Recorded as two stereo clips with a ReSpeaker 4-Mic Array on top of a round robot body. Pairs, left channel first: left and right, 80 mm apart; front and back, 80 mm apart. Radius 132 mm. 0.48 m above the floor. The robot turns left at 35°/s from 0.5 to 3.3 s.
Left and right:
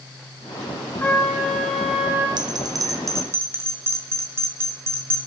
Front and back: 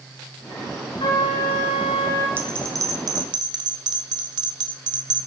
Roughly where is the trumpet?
Ahead.